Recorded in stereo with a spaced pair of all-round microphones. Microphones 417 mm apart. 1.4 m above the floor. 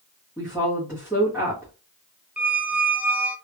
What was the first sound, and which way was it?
A woman speaking, 5° right (ahead or behind).